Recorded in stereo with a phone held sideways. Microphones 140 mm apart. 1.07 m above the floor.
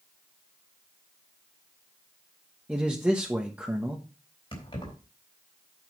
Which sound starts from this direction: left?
Keys jangling, at 4.5 s.